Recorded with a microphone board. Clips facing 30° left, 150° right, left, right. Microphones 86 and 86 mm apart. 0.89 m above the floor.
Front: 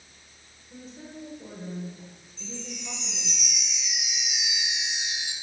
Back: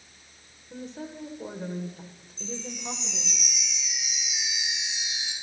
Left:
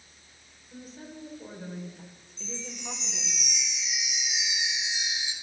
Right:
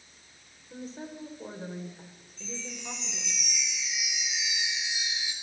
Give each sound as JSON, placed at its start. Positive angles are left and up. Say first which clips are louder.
{"t": 0.7, "sound": "a woman speaking", "louder": "back 5 dB, right 4 dB", "azimuth_deg": -140, "distance_m": 3.0}
{"t": 2.4, "sound": "a chime", "louder": "back 3 dB, even", "azimuth_deg": 25, "distance_m": 5.0}